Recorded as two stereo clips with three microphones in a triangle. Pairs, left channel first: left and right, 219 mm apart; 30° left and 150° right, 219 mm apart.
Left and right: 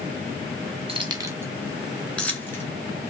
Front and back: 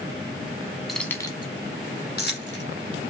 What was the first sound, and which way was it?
Keys jangling, 60° right.